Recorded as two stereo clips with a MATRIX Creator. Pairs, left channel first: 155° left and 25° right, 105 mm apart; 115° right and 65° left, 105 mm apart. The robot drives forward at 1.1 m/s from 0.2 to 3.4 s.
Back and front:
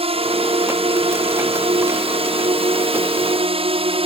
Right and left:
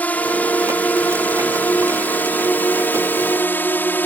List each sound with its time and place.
0.0 s a drone: 35° right; by 4.1 s 40° right